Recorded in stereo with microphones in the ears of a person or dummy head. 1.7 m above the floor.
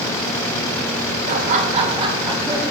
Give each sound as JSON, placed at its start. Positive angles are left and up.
{"t": 1.3, "sound": "laughter", "side_deg": -40, "distance_m": 3.0}